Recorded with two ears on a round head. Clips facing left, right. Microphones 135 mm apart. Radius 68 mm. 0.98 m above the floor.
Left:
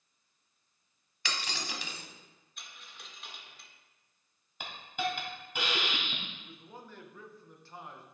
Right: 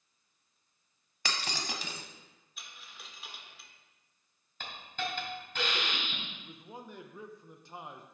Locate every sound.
1.2 s breaking glass: 35° right (ahead or behind), 1.2 m
2.6 s a dropped coin: 5° right (ahead or behind), 1.3 m
4.6 s a hiss: 10° left (ahead or behind), 2.5 m
6.4 s a man speaking: 15° right (ahead or behind), 0.8 m